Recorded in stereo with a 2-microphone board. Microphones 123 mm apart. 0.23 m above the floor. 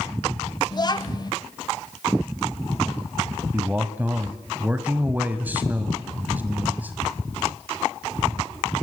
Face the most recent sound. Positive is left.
turn(degrees=-15)  # may be behind; listen again after turning